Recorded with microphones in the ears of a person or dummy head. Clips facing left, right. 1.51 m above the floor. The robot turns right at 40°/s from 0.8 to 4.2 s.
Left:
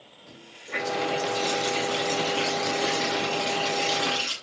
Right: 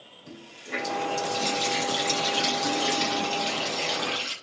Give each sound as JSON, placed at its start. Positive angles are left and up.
{"t": 0.3, "sound": "a running tap", "azimuth_deg": -130, "distance_m": 7.0}